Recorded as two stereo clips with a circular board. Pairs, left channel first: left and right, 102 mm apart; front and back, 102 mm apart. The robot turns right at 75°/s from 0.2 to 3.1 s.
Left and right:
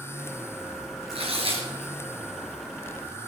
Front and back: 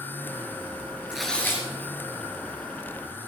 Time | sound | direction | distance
1.1 | tearing paper | 95° right | 3 m